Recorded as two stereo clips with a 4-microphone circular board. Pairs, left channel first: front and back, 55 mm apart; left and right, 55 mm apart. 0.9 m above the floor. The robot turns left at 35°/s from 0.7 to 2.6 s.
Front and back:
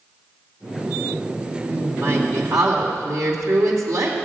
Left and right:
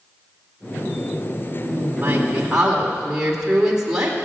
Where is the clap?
I don't hear a clap.